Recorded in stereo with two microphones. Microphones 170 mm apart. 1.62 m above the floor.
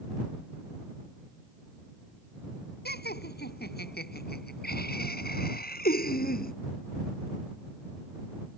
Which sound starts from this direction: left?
Laughter, at 2.9 s.